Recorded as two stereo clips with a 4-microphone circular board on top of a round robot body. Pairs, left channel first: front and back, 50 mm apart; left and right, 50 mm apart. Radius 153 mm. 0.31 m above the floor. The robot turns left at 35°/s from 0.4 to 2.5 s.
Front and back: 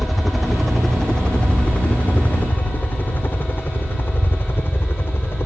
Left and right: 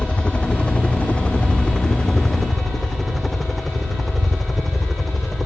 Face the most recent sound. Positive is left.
turn(degrees=0)